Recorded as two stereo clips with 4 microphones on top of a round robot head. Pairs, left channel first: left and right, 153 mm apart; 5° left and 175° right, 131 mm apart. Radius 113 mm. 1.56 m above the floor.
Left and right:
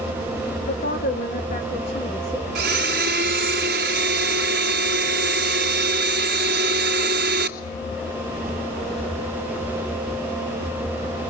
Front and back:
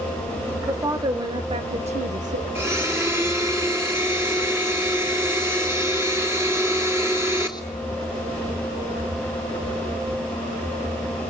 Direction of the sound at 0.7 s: 120° left.